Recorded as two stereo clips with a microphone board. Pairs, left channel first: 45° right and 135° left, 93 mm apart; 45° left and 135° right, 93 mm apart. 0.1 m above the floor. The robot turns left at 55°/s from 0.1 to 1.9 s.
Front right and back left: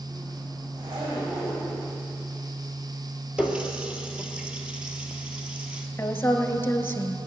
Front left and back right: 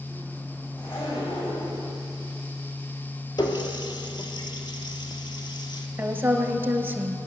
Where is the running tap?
55° left, 1.5 m.